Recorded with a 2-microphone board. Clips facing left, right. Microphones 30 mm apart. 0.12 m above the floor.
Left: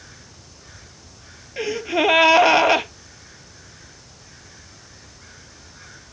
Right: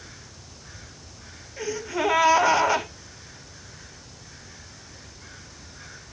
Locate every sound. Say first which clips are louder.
1.6 s a gasp: left 6 dB; 60° left (ahead or behind), 0.7 m